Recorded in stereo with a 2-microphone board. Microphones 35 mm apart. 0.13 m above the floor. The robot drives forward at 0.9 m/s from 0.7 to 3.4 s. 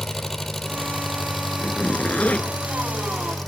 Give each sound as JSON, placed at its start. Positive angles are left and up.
{"t": 0.0, "sound": "an engine running", "side_deg": 5, "distance_m": 3.5}
{"t": 1.6, "sound": "a zipper", "side_deg": 45, "distance_m": 1.3}